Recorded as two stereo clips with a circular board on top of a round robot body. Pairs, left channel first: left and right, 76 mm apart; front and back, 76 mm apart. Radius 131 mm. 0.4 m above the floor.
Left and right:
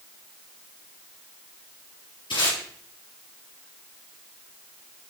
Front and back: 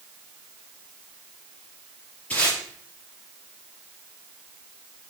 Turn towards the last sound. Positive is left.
turn(degrees=75)